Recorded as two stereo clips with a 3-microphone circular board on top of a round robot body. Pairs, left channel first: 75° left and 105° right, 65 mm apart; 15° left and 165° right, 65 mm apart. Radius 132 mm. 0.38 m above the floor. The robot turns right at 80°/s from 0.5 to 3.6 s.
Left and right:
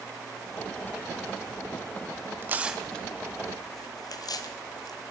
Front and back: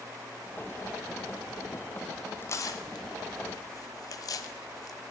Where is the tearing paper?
45° right, 0.6 m; by 5.0 s 45° left, 0.6 m.